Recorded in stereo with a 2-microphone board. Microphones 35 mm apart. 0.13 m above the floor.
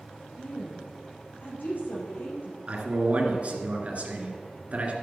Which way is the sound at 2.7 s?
40° right (ahead or behind).